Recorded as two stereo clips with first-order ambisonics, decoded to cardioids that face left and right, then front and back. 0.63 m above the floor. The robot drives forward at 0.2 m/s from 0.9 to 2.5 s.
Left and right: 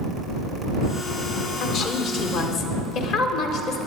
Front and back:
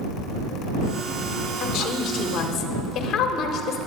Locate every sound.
1.6 s a woman speaking: 45° left, 1.3 m; by 3.8 s 55° left, 1.2 m